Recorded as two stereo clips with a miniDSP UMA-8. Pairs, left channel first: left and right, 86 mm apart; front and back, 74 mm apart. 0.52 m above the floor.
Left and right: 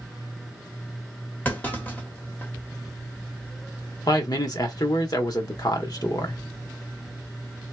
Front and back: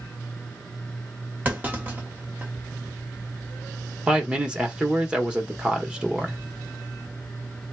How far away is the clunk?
About 1.2 m.